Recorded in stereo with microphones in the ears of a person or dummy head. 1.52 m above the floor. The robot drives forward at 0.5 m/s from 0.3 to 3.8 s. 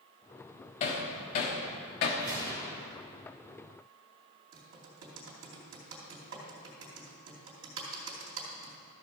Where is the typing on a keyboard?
70° right (ahead or behind), 3 m.